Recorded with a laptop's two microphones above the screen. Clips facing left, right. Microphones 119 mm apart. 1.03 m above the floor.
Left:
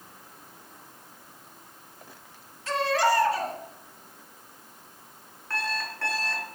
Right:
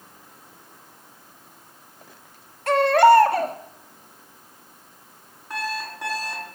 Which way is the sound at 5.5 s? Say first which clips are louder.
Right 3 dB; 15° right (ahead or behind).